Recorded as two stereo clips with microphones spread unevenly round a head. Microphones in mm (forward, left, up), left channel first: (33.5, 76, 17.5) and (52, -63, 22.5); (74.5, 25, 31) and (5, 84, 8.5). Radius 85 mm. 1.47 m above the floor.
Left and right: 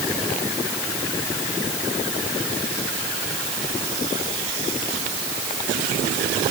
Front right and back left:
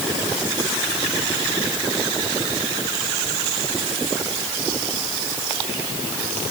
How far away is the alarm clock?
I don't hear an alarm clock.